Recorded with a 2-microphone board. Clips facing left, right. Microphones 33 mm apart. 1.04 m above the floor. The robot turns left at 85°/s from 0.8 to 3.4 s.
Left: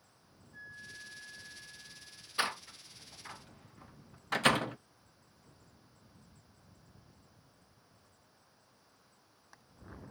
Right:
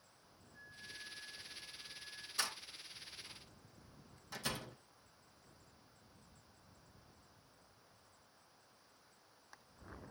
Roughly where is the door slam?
Left.